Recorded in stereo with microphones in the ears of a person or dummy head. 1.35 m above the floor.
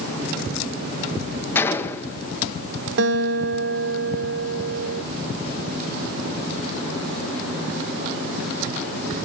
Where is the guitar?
60° right (ahead or behind), 1.7 m.